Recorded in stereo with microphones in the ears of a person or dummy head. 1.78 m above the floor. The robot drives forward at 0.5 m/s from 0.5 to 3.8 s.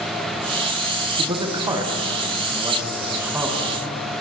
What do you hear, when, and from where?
1.2 s a man speaking: 25° right (ahead or behind), 1.0 m; by 3.8 s 10° right (ahead or behind), 2 m